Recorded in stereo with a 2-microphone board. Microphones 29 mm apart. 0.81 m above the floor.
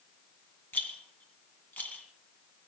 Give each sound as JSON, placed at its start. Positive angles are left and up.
{"t": 0.7, "sound": "a rattle", "side_deg": 75, "distance_m": 2.5}